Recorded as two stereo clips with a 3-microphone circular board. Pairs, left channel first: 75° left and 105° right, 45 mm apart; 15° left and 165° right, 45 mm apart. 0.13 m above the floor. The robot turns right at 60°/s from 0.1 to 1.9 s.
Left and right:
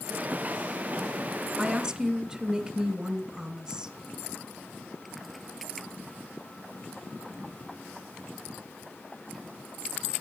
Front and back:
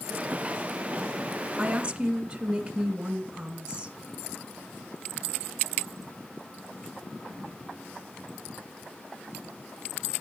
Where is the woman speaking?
160° right, 1.7 m; by 3.9 s 140° right, 1.7 m.